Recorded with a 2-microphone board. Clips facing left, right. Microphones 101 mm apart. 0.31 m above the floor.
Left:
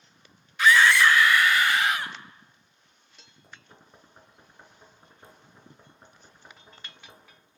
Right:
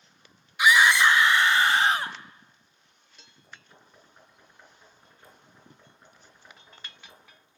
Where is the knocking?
25° left (ahead or behind), 3.5 m.